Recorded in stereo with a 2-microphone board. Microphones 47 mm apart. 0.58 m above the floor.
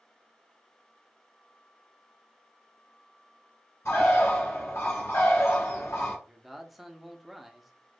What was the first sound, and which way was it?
A bird, 75° left (ahead or behind).